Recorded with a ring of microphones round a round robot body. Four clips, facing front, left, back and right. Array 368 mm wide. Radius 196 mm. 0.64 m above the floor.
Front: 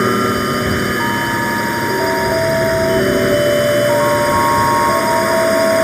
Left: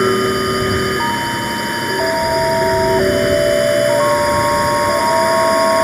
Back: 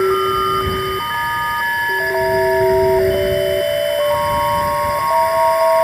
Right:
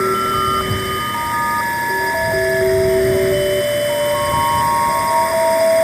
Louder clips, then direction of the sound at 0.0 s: Left 2 dB, even; 20° left.